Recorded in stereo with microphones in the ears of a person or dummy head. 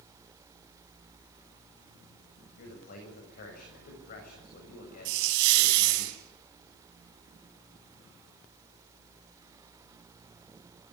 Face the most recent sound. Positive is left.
turn(degrees=-50)  # may be behind; listen again after turning